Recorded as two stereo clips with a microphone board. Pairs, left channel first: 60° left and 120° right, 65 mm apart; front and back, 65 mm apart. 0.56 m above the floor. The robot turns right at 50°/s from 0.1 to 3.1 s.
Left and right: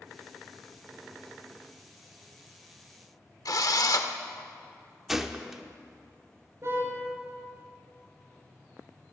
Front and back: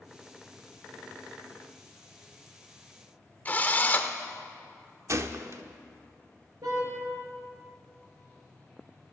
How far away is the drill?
About 0.8 m.